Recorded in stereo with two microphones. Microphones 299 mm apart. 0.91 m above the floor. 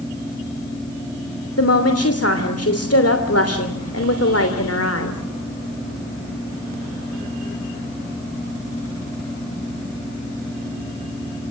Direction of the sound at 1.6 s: 55° left (ahead or behind).